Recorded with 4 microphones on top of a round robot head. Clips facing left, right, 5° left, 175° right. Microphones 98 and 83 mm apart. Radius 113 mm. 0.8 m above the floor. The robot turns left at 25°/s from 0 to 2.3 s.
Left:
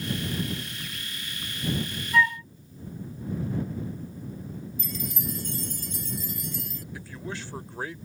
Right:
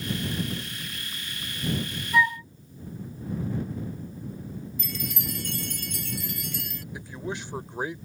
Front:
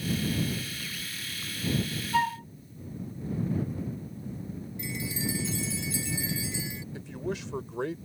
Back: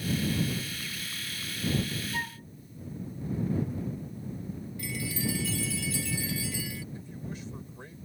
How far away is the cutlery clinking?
I don't hear cutlery clinking.